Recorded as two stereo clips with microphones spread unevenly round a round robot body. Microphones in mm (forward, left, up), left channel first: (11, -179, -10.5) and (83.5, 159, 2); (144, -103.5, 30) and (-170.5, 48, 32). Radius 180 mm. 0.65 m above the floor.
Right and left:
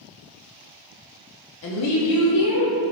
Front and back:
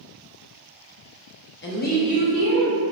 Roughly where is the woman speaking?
Right.